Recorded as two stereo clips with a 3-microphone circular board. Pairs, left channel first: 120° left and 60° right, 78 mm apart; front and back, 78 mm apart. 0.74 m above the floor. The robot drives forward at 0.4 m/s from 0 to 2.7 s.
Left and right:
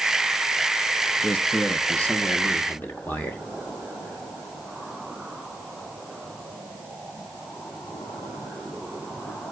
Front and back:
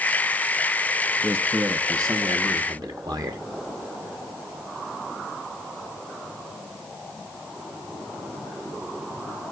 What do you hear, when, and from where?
1.2 s a man speaking: 175° left, 0.6 m; by 3.4 s straight behind, 1.1 m